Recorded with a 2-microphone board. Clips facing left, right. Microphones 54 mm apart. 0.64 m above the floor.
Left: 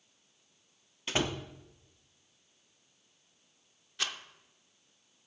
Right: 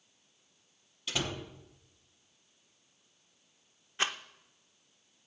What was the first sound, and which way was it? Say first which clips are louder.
A door slam: left 3 dB; 35° left (ahead or behind).